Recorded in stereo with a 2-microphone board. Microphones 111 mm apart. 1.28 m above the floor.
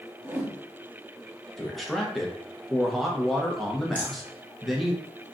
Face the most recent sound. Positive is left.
turn(degrees=15)  # may be behind; listen again after turning